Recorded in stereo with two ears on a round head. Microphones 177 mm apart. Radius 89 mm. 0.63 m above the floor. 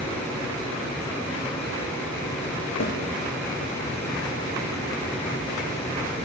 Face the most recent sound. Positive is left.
turn(degrees=70)  # may be behind; listen again after turning